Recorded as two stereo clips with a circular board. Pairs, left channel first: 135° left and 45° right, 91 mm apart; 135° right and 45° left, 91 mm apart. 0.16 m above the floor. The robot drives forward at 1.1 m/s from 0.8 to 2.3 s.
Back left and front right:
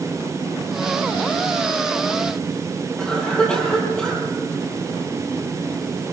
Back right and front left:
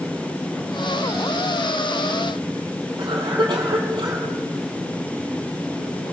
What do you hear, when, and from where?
3.0 s a cough: 55° left, 4.5 m